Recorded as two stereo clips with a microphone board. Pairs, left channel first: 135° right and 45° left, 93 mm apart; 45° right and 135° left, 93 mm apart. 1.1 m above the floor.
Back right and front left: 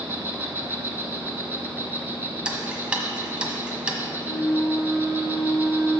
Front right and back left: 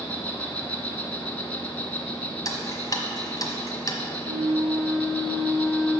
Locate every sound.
0.0 s an insect: 5° left, 1.1 m
2.5 s ticking: 30° right, 1.2 m
4.2 s a flute: 160° left, 1.5 m